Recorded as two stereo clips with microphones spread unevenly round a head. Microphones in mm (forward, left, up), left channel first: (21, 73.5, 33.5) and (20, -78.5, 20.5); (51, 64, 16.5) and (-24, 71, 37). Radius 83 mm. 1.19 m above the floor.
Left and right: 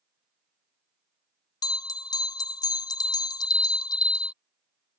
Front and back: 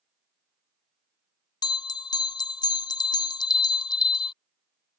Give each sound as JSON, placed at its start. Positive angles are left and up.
{"t": 1.6, "sound": "a bell", "azimuth_deg": 30}